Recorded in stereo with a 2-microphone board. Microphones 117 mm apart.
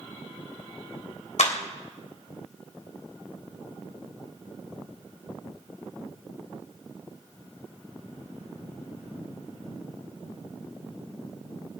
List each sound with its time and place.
1.4 s a clap: 75° left (ahead or behind), 3 m